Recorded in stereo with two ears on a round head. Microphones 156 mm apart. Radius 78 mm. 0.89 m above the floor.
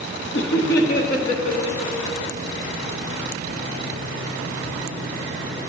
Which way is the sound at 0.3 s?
70° left (ahead or behind).